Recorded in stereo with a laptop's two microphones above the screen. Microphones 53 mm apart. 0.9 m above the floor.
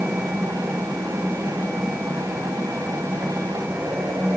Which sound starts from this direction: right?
A fan, at 0.0 s.